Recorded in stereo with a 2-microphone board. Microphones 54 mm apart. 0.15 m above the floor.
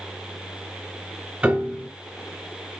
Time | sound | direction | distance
1.4 | a piano | 25° right (ahead or behind) | 1.2 m